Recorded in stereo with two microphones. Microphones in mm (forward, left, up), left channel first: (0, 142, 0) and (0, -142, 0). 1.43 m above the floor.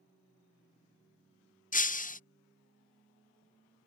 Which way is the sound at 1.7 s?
30° left (ahead or behind).